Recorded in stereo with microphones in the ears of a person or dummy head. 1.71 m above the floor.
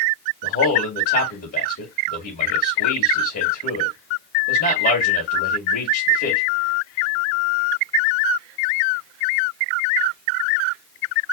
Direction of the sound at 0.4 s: 50° left (ahead or behind).